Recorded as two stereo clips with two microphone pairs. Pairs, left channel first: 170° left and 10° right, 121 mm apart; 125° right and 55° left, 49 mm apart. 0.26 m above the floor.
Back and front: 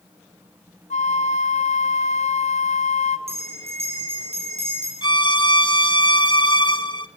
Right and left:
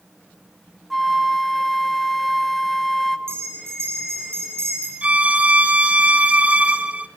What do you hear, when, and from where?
0.9 s a flute: 150° left, 0.8 m
3.3 s a bell: 20° left, 8.5 m
5.0 s a violin: 120° left, 0.8 m